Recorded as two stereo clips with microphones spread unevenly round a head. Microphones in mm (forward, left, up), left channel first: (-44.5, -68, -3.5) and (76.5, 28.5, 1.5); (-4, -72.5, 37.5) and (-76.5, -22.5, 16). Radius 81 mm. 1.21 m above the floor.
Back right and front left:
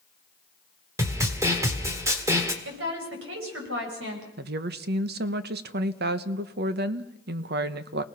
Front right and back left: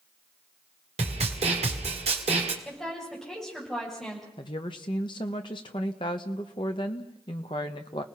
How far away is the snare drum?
About 1.9 m.